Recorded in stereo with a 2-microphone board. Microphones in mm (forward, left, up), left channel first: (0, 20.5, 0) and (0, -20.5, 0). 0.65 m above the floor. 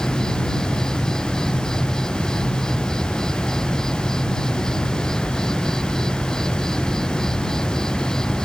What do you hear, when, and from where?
0.0 s an insect: 15° left (ahead or behind)